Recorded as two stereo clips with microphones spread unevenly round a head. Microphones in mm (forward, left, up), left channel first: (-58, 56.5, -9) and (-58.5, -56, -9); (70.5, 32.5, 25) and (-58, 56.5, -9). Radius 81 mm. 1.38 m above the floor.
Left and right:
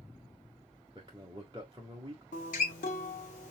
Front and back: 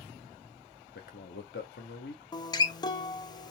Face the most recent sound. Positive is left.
turn(degrees=50)